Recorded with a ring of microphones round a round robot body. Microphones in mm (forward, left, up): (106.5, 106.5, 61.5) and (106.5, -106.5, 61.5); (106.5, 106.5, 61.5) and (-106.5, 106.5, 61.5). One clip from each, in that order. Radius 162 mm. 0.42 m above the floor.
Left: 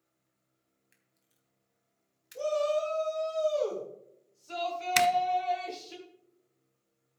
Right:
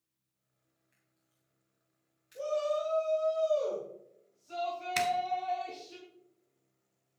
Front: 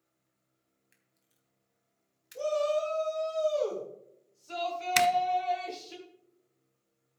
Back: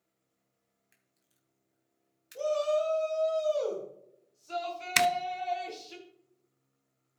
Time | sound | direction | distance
0.9 | a camera shutter | 105° left | 3 m
2.4 | a shout | 105° left | 3 m
5.0 | a zipper | 125° left | 0.8 m